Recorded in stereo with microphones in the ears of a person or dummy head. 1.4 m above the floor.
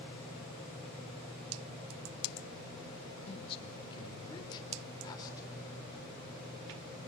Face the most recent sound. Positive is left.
turn(degrees=20)  # may be behind; listen again after turning